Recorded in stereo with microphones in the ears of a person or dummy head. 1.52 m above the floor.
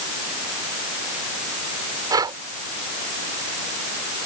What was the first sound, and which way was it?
Breathing, 25° right (ahead or behind).